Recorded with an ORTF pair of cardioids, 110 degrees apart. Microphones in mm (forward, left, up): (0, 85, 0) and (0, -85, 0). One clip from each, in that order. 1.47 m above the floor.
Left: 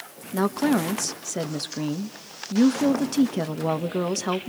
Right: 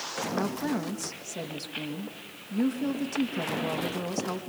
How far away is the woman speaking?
About 1.4 m.